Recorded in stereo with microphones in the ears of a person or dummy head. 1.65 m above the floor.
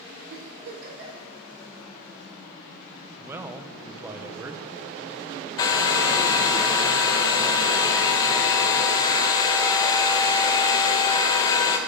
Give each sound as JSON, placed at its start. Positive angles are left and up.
{"t": 0.3, "sound": "a giggle", "side_deg": -55, "distance_m": 3.0}
{"t": 3.2, "sound": "a man speaking", "side_deg": -15, "distance_m": 0.7}
{"t": 5.6, "sound": "a hair dryer", "side_deg": 25, "distance_m": 0.8}